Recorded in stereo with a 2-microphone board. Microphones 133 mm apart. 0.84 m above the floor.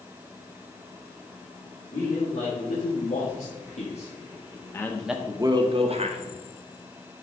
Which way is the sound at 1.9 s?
70° left (ahead or behind).